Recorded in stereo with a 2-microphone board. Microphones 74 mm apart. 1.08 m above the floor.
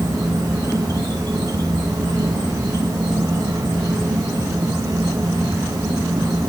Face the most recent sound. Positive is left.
turn(degrees=-60)  # may be behind; listen again after turning